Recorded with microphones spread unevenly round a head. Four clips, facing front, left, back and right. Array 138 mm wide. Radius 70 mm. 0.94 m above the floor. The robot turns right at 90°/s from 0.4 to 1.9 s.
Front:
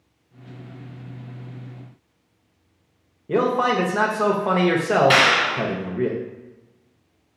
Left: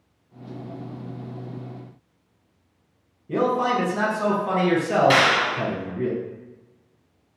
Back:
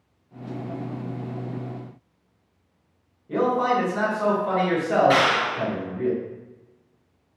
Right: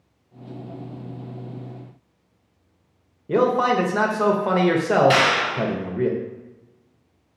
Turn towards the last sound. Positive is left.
turn(degrees=20)